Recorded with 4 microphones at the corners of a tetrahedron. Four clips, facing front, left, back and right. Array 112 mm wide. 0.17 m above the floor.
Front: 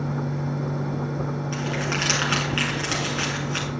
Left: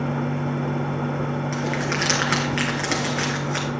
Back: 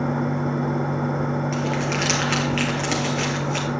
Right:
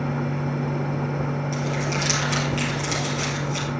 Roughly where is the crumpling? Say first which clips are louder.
Left 1 dB, back 3 dB; left.